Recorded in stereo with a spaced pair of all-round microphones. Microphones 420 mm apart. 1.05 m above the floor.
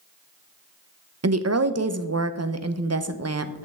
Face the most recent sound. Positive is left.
turn(degrees=-35)  # may be behind; listen again after turning